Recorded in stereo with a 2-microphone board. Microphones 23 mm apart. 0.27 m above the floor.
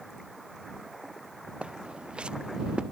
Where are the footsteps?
60° right (ahead or behind); by 2.8 s 45° right (ahead or behind).